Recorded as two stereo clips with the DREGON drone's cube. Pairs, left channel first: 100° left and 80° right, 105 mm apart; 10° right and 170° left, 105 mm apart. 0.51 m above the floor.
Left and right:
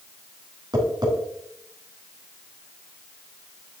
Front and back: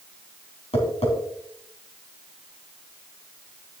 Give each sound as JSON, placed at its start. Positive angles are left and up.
{"t": 0.7, "sound": "tapping", "azimuth_deg": -30, "distance_m": 3.0}